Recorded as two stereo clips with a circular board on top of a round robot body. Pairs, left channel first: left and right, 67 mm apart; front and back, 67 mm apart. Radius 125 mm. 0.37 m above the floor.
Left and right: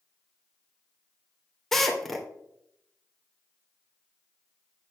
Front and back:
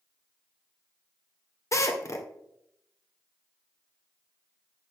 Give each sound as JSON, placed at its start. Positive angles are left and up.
{"t": 1.7, "sound": "a drill", "azimuth_deg": 5, "distance_m": 2.0}